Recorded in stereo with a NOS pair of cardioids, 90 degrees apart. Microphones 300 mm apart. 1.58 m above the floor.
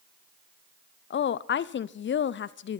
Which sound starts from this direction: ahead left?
A woman speaking, at 1.1 s.